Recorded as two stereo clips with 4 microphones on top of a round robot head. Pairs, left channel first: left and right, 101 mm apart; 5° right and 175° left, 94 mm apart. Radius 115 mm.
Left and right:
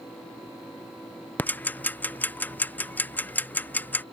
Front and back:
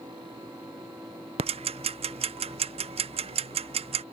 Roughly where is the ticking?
Behind.